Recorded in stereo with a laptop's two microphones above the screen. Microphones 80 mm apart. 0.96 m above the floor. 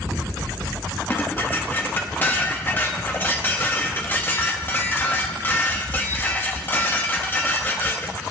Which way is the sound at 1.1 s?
25° left (ahead or behind).